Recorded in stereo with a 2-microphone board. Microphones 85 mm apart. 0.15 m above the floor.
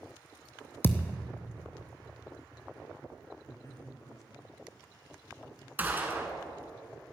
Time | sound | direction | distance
0.8 | a thud | 25° left (ahead or behind) | 0.5 m
3.5 | a man speaking | 40° left (ahead or behind) | 1.7 m
5.8 | a gunshot | 20° right (ahead or behind) | 1.2 m